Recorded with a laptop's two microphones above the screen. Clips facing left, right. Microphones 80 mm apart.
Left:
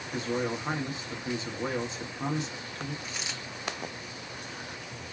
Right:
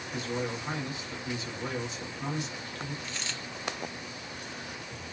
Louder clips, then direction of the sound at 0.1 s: Left 3 dB; 35° left (ahead or behind).